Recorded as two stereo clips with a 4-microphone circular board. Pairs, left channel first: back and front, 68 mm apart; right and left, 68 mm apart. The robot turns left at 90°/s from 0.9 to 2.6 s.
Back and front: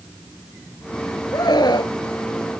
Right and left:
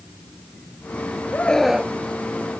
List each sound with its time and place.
1.3 s a scream: 150° right; by 1.9 s 155° left